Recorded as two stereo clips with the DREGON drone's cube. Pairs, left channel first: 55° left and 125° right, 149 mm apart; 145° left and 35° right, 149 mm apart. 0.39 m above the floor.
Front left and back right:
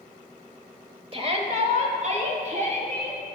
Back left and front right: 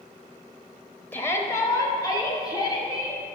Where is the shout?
145° right, 1.1 m; by 3.2 s 155° right, 3 m.